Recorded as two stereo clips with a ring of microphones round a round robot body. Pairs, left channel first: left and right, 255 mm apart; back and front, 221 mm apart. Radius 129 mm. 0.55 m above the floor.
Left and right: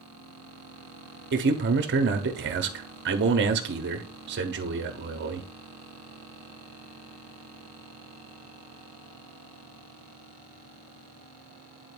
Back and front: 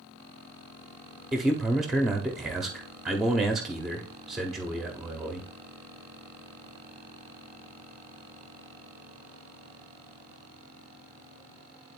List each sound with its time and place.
1.3 s a man speaking: 90° right, 0.9 m